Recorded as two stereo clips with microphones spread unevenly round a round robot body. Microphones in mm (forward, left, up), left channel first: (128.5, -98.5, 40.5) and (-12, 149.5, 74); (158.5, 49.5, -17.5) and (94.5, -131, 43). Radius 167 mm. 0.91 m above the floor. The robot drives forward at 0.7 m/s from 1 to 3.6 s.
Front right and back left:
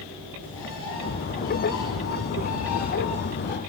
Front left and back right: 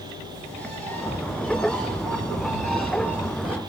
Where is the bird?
20° right, 4 m; by 3.6 s 35° right, 2 m.